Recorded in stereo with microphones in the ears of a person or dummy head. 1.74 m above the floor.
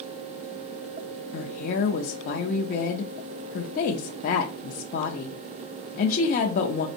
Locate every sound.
1.3 s a woman speaking: 50° left (ahead or behind), 0.6 m